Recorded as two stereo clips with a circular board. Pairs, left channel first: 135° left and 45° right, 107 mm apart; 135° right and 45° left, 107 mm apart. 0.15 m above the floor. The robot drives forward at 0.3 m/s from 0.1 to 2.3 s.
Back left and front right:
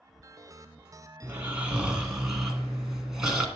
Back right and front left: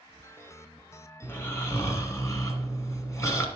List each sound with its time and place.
1.2 s snoring: 95° right, 1.2 m; by 3.5 s 125° right, 1.3 m